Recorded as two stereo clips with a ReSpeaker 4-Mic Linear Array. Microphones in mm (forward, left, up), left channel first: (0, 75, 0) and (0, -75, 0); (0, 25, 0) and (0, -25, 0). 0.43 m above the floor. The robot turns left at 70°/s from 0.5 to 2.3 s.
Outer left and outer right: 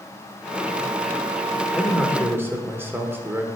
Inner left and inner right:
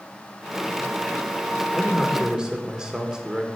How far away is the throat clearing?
I don't hear throat clearing.